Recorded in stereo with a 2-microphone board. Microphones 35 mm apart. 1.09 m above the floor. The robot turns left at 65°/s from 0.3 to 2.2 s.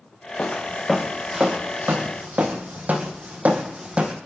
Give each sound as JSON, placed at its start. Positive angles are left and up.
{"t": 0.4, "sound": "footsteps", "side_deg": 35, "distance_m": 2.5}